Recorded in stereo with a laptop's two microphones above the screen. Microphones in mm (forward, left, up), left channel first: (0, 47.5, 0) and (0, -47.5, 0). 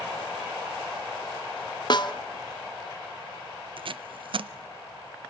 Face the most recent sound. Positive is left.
turn(degrees=-60)  # may be behind; listen again after turning